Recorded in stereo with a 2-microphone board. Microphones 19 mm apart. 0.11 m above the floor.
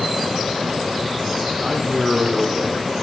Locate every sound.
1.6 s a man speaking: 15° right (ahead or behind), 4.5 m